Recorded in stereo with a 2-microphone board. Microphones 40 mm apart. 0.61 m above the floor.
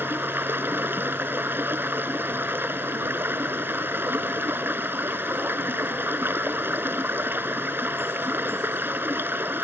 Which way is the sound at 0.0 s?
65° right (ahead or behind).